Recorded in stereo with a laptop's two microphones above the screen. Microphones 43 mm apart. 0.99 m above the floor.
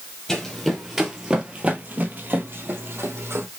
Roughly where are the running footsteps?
Centre.